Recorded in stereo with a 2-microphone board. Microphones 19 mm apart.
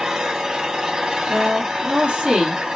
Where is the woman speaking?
85° right, 1.6 m.